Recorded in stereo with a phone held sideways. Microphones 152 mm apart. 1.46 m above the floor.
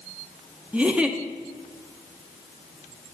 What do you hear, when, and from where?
0.7 s a giggle: 10° right (ahead or behind), 0.7 m